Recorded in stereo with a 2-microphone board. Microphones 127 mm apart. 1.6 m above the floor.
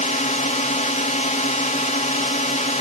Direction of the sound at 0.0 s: 75° left (ahead or behind).